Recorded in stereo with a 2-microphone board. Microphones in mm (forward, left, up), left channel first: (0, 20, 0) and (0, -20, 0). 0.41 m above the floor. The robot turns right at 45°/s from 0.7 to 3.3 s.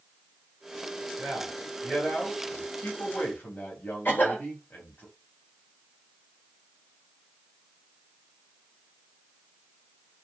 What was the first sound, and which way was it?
A man speaking, 40° right.